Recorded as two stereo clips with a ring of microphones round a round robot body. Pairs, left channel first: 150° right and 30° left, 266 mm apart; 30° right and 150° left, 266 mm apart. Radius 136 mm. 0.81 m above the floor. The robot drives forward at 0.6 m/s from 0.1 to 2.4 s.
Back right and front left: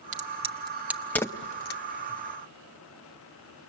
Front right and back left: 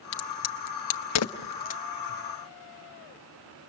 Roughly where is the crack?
Ahead right.